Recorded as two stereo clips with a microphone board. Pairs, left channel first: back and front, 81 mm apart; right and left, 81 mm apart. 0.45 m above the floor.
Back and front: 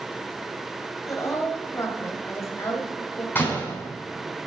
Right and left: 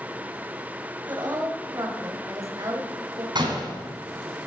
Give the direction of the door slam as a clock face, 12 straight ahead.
8 o'clock.